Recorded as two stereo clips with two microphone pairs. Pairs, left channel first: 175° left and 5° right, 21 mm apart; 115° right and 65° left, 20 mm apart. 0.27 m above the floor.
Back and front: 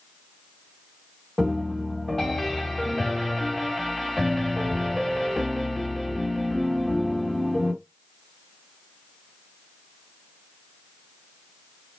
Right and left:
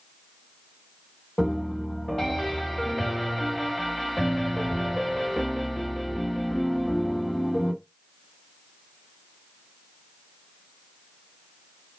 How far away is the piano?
About 1.9 m.